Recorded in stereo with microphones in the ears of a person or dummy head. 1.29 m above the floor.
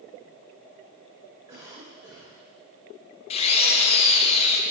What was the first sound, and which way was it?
A cough, 10° right (ahead or behind).